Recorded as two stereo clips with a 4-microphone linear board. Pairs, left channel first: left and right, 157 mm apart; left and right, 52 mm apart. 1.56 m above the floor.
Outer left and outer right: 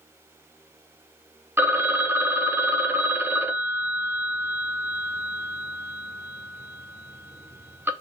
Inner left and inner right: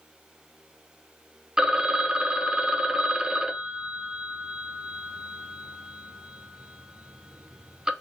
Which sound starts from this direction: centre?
A phone ringing, at 1.6 s.